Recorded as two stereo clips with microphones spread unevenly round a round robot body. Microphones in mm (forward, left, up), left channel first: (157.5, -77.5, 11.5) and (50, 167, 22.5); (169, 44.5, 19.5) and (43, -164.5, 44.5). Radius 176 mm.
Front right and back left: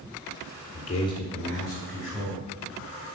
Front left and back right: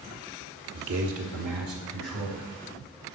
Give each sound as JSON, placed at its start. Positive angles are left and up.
{"t": 0.7, "sound": "a man speaking", "azimuth_deg": -120, "distance_m": 1.2}